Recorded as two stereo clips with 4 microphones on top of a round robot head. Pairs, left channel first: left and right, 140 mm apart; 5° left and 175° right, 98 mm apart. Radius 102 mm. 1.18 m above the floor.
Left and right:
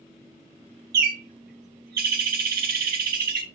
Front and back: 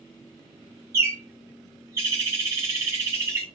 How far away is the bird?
About 0.9 m.